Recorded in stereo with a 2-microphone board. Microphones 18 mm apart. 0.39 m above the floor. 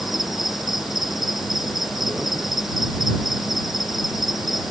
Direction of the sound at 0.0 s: 15° right (ahead or behind).